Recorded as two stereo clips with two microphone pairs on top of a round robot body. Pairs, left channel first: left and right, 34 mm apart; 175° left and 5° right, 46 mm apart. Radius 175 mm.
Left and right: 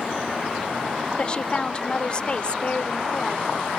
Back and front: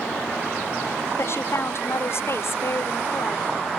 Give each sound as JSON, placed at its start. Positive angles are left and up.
{"t": 1.2, "sound": "a woman speaking", "azimuth_deg": 155}